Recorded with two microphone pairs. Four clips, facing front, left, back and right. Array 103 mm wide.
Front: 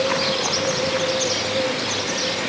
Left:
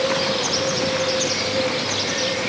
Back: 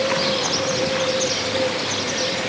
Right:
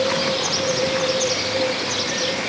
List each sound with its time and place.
Only background noise.